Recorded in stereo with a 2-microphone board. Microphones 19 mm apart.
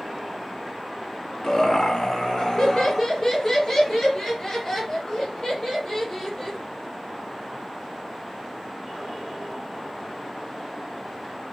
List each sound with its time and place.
1.4 s laughter: 25° left (ahead or behind), 1.2 m; by 6.6 s 15° left (ahead or behind), 3 m